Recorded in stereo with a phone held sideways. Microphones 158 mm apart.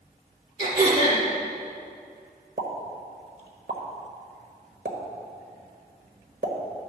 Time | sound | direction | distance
0.6 | throat clearing | 45° right (ahead or behind) | 2.5 m
2.6 | a pop | 70° right (ahead or behind) | 1.3 m